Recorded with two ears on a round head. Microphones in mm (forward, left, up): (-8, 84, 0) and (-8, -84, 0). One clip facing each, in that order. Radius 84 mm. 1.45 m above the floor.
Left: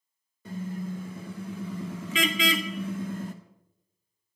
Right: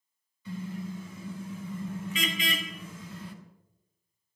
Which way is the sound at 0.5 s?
45° left (ahead or behind).